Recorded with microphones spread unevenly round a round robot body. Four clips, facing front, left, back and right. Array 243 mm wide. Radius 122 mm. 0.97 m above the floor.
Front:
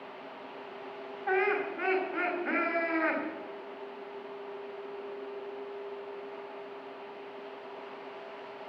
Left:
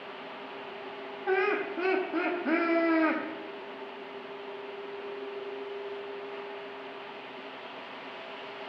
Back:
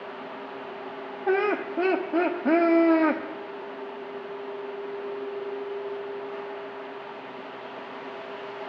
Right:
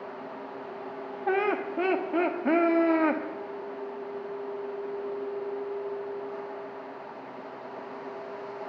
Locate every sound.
1.3 s laughter: 155° right, 1.5 m